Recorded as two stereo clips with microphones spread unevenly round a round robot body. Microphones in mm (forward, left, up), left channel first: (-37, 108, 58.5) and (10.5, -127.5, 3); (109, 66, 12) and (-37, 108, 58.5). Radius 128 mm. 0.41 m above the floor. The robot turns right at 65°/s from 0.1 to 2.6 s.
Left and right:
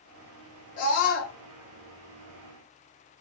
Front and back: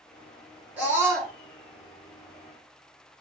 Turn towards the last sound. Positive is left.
turn(degrees=175)